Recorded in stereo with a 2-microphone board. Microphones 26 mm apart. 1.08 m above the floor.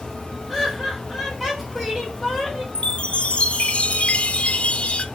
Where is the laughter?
Centre (ahead or behind), 4.5 m.